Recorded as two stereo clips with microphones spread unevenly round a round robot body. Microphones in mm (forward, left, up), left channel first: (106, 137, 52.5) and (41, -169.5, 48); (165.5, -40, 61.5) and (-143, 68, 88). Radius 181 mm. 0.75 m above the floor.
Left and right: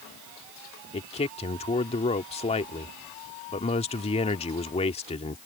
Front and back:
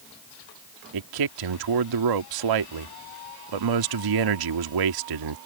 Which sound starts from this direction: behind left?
A man speaking, at 0.9 s.